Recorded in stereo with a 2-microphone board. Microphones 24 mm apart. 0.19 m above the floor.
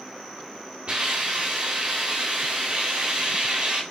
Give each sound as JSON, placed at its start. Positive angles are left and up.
{"t": 0.9, "sound": "a hiss", "side_deg": -50, "distance_m": 1.6}